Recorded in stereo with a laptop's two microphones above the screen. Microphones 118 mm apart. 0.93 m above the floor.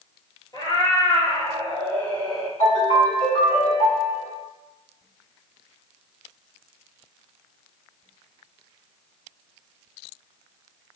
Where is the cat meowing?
40° left (ahead or behind), 1.3 m; by 2.5 s centre (ahead or behind), 0.8 m.